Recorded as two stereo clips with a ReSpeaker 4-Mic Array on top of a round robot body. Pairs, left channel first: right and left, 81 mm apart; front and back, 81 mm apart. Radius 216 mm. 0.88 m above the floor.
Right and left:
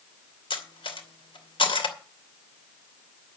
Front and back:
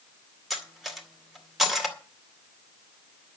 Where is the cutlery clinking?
90° right, 2 m.